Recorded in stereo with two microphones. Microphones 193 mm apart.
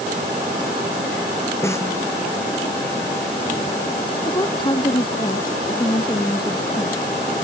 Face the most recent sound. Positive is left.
turn(degrees=25)  # may be behind; listen again after turning